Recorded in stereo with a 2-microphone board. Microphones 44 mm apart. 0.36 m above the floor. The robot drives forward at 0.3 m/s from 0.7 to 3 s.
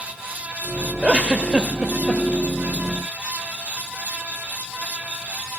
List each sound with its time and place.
1.0 s a giggle: 25° right (ahead or behind), 0.7 m; by 2.2 s 20° right (ahead or behind), 0.8 m